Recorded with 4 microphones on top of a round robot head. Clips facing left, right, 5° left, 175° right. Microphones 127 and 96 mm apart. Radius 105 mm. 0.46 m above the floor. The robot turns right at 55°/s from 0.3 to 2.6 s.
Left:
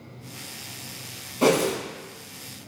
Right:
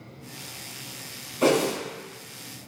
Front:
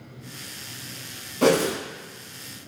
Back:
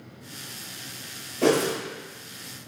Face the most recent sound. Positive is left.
turn(degrees=95)